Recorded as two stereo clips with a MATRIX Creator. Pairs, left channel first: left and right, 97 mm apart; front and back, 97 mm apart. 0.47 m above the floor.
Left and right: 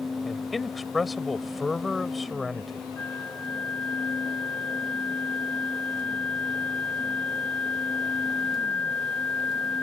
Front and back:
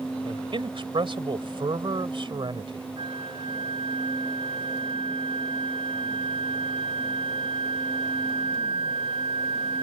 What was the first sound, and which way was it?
A man speaking, straight behind.